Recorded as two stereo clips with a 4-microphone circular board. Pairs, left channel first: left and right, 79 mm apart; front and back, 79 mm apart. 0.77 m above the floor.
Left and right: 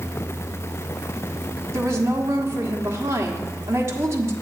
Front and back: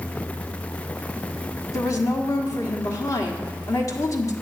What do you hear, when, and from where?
1.7 s a woman speaking: 40° right, 1.4 m